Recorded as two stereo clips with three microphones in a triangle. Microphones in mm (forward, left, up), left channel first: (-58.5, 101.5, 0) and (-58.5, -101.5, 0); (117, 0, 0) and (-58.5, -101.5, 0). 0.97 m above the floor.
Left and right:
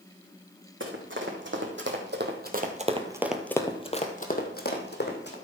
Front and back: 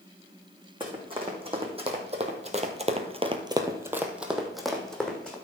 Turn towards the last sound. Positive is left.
turn(degrees=115)